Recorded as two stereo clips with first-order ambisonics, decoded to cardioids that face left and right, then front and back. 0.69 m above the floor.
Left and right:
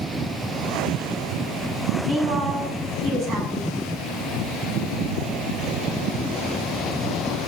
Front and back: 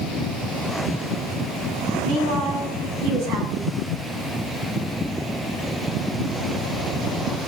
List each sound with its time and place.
2.0 s a woman speaking: 145° right, 7 m